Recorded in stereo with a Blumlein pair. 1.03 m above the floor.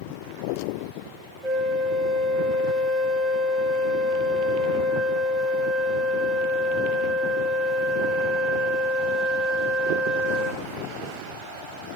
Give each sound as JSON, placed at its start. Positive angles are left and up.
{"t": 1.4, "sound": "a flute", "azimuth_deg": -5, "distance_m": 1.8}